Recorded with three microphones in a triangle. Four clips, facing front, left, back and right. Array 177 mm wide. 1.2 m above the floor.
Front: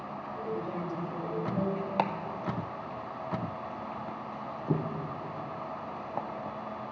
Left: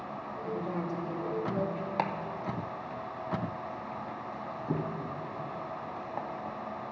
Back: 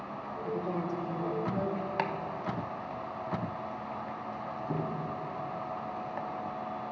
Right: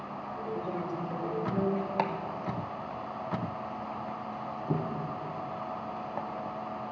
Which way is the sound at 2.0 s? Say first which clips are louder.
Right 1 dB, front 2 dB; straight ahead.